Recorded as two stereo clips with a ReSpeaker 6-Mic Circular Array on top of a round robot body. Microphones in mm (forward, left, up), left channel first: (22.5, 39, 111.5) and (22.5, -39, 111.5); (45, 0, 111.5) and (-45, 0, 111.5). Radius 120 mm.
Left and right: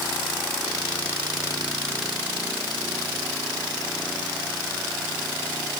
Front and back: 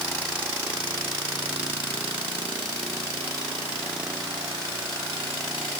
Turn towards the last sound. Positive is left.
No sound to turn to.